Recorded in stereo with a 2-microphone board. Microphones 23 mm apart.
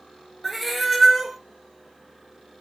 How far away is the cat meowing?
About 0.7 m.